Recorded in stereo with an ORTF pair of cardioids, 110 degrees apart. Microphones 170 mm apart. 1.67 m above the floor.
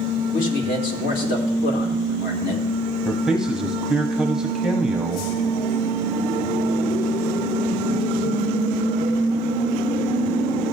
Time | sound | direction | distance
0.3 | a man speaking | 55° left | 2.5 m
3.0 | a man speaking | 5° right | 0.9 m